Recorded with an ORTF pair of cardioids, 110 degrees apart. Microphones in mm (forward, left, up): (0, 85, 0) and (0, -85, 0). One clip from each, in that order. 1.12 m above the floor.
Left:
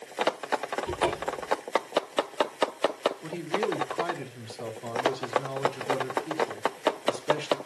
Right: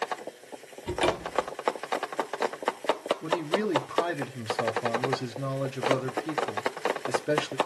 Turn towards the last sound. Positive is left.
turn(degrees=-45)